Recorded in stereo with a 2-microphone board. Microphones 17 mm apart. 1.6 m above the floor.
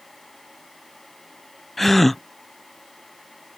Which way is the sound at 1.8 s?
15° left (ahead or behind).